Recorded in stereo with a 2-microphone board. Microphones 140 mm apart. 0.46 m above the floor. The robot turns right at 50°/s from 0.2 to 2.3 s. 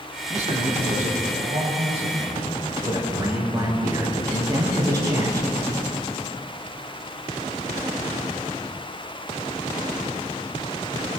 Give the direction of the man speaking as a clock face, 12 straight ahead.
4 o'clock.